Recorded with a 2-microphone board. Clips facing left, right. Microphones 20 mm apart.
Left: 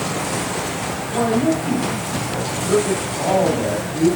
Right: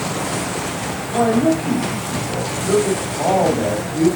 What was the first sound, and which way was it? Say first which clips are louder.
A man speaking: right 3 dB; 35° right (ahead or behind).